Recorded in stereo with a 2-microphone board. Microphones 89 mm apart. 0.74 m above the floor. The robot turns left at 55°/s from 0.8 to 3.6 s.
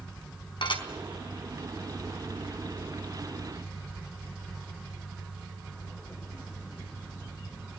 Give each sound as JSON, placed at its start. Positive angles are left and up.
{"t": 0.6, "sound": "dishes clattering", "side_deg": 65, "distance_m": 4.5}